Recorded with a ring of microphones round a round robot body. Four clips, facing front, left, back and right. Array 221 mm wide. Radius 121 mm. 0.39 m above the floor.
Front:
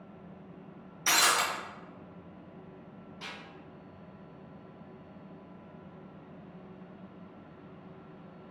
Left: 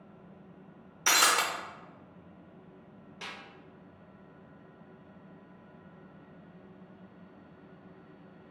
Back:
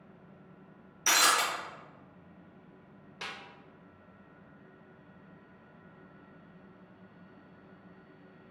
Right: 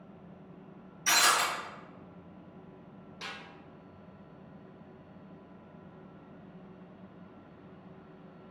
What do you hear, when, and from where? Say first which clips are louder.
1.1 s breaking glass: even, even; 95° left, 0.8 m
3.2 s a snare drum: right 1 dB, back 3 dB; 170° left, 0.6 m